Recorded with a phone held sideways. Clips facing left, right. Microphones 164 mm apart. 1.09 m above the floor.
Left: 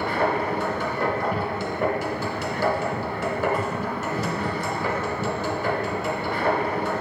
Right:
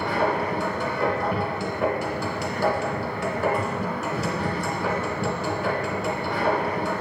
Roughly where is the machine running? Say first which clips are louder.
Even; centre.